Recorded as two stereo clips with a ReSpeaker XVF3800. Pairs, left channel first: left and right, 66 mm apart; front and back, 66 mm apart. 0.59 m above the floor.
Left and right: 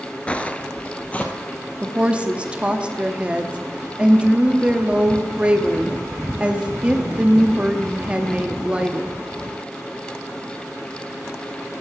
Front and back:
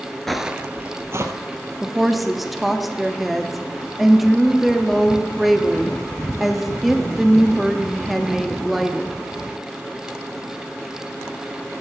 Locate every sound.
0.3 s footsteps: 80° left, 0.5 m; by 1.3 s 155° left, 1.1 m
1.8 s a woman speaking: 95° right, 0.7 m